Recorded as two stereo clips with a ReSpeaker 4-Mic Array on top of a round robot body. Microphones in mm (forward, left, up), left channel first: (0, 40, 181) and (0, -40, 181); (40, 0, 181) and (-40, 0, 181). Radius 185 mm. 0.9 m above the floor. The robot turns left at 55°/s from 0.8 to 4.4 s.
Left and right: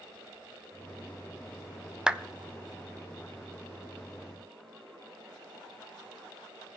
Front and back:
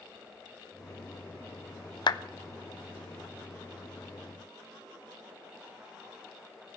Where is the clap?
10° right, 1.0 m; by 2.2 s 15° right, 1.0 m.